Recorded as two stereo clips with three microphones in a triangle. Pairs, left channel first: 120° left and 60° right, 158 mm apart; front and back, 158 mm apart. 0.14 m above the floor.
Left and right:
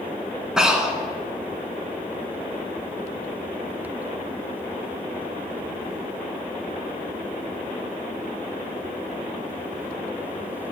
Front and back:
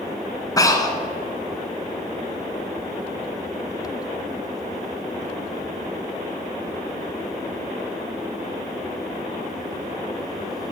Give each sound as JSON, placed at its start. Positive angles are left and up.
{"t": 0.6, "sound": "breathing", "azimuth_deg": 20, "distance_m": 0.9}